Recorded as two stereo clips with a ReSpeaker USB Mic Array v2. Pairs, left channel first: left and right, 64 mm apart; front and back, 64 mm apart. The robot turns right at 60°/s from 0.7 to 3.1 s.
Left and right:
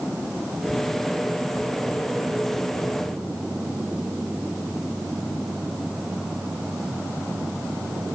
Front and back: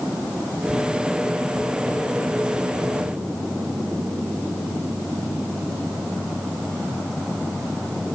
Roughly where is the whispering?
No whispering in this recording.